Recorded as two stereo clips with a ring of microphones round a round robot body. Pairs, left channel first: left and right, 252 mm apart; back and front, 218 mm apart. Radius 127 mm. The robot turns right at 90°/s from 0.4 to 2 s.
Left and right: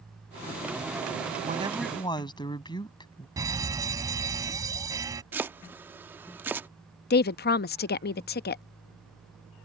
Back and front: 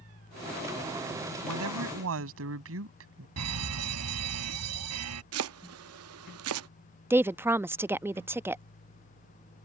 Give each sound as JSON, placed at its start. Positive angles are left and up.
{"t": 1.4, "sound": "a woman speaking", "azimuth_deg": -35}
{"t": 3.4, "sound": "a fire alarm", "azimuth_deg": -15}
{"t": 5.3, "sound": "chopping", "azimuth_deg": -10}
{"t": 7.1, "sound": "a woman speaking", "azimuth_deg": 75}